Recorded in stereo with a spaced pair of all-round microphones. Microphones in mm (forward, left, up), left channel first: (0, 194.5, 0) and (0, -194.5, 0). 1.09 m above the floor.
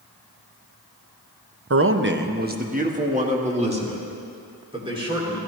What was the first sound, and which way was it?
A man speaking, 40° right (ahead or behind).